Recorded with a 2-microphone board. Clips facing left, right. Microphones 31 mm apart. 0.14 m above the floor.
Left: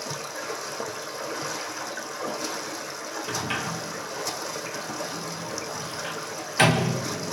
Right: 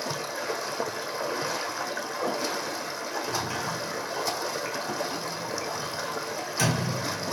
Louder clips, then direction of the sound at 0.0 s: Right 2 dB; 20° right (ahead or behind).